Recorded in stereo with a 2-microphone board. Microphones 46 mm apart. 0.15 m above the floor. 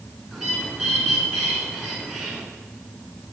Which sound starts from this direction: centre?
A bird, at 0.3 s.